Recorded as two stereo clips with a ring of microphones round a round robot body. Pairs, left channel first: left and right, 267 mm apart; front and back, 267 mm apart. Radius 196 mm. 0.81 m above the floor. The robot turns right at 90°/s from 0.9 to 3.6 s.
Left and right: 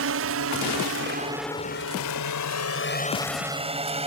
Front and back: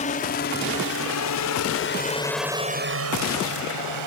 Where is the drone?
65° right; by 4.1 s 155° right.